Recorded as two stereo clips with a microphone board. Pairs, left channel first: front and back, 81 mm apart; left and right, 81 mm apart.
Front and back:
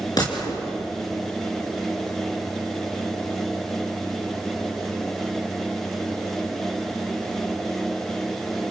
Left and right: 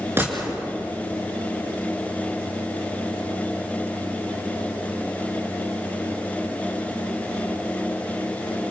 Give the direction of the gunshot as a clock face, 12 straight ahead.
1 o'clock.